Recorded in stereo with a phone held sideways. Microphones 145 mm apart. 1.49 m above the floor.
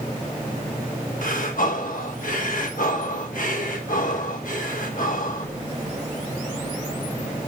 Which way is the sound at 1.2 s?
65° left (ahead or behind).